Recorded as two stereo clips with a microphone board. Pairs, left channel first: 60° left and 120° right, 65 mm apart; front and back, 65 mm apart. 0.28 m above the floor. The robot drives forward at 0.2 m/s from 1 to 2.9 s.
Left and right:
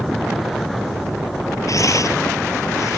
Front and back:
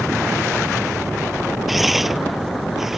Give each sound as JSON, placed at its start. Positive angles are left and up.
{"t": 1.7, "sound": "tearing paper", "azimuth_deg": 90}